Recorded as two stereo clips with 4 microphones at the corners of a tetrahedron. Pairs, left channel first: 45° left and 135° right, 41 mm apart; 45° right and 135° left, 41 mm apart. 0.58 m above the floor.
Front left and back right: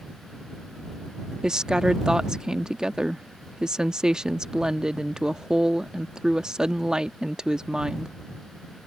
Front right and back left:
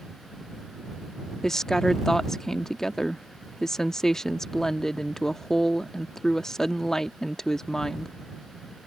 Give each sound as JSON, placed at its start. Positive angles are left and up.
{"t": 1.4, "sound": "a woman speaking", "azimuth_deg": -100}